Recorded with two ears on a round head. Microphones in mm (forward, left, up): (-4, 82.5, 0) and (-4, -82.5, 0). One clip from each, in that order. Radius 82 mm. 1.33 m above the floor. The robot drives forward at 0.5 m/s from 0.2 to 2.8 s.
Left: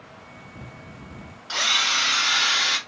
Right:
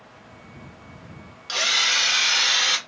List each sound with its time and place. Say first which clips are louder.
1.5 s a drill: right 1 dB; 55° right (ahead or behind), 1.3 m; by 2.8 s 70° right (ahead or behind), 1.2 m